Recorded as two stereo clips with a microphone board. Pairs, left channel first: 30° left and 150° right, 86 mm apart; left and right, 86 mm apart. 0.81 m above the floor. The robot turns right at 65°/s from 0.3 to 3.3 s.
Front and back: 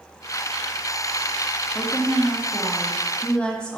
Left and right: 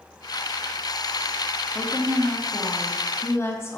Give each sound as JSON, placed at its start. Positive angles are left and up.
{"t": 1.8, "sound": "a woman speaking", "azimuth_deg": 0, "distance_m": 0.6}